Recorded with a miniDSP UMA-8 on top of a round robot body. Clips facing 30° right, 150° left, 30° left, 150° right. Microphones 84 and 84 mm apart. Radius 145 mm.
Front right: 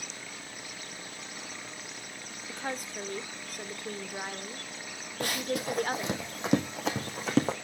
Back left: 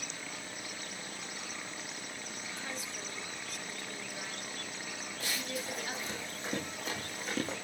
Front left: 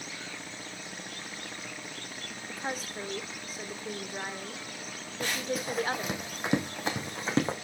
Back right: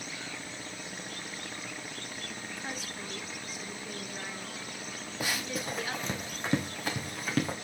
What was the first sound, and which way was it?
A woman speaking, 10° right.